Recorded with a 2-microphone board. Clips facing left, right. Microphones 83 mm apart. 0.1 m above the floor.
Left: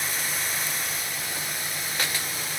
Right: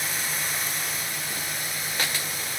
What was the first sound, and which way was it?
Only background noise.